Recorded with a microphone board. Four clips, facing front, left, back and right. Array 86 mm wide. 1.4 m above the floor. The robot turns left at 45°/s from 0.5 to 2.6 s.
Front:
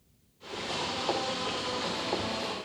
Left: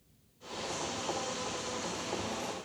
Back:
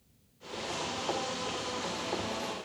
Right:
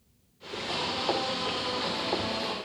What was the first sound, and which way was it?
Only background noise.